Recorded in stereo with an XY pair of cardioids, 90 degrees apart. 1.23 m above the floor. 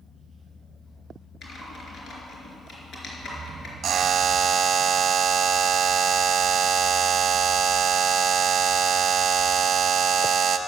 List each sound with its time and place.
1.4 s typing on a keyboard: 50° left, 4 m
3.8 s a buzzer: 65° right, 0.9 m